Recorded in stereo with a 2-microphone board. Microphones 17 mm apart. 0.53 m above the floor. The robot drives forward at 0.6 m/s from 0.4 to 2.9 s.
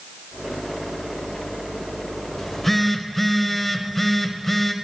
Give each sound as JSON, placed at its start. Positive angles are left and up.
{"t": 2.4, "sound": "a phone buzzing", "side_deg": 15, "distance_m": 0.6}